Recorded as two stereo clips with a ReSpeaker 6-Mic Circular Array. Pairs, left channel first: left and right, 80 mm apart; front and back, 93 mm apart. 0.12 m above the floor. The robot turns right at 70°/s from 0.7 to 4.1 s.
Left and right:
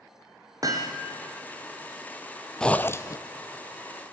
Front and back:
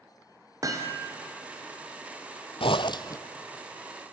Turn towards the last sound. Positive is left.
turn(degrees=115)